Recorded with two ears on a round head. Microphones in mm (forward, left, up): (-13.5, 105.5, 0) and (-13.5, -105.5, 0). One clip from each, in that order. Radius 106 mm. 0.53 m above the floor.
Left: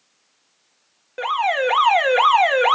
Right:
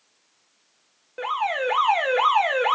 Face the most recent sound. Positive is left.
turn(degrees=20)  # may be behind; listen again after turning